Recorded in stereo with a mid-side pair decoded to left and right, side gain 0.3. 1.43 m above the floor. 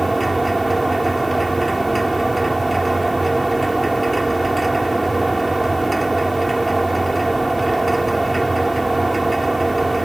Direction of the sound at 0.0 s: 25° right.